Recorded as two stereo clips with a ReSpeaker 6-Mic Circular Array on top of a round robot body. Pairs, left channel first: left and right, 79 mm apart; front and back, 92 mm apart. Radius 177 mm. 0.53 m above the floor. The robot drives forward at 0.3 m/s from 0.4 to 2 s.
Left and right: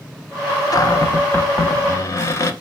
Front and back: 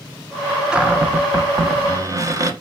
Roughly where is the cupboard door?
Left.